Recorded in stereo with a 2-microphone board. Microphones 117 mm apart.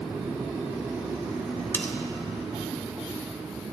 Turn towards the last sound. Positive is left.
turn(degrees=20)  # may be behind; listen again after turning